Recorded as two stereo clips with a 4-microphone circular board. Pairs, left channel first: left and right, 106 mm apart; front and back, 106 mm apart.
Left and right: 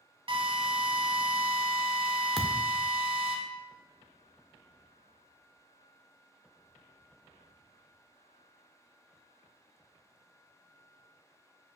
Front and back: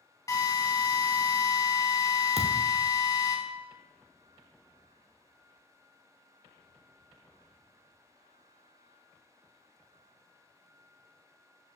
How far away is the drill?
About 1.5 m.